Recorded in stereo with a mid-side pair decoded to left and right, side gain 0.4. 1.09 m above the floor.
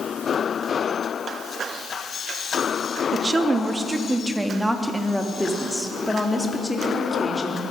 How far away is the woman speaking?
About 1.8 m.